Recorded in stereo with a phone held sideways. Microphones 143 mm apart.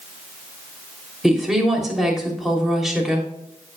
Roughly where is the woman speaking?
Centre.